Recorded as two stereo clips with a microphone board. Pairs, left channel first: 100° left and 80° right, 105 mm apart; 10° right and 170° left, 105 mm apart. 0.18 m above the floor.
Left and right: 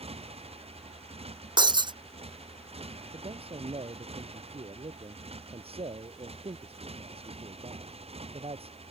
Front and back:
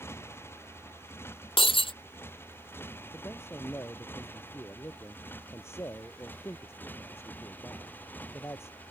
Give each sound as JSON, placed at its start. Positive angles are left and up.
{"t": 0.0, "sound": "a motorcycle", "azimuth_deg": -75}
{"t": 1.6, "sound": "breaking glass", "azimuth_deg": -40}
{"t": 3.1, "sound": "a man speaking", "azimuth_deg": -75}